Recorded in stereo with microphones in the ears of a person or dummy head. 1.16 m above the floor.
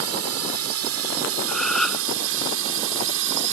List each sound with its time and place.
0.0 s a drone: 75° right (ahead or behind); by 3.5 s 65° right (ahead or behind)
1.5 s a gasp: 5° left (ahead or behind)